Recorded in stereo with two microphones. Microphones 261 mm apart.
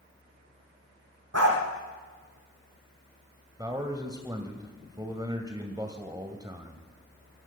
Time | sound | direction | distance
1.3 | a dog barking | 65° right (ahead or behind) | 6 m
3.6 | a man speaking | 15° right (ahead or behind) | 1.9 m